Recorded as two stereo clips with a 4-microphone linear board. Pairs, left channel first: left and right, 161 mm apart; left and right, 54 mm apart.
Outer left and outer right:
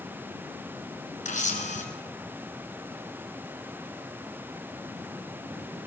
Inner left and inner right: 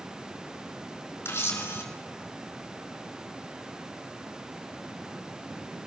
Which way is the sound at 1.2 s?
45° left (ahead or behind).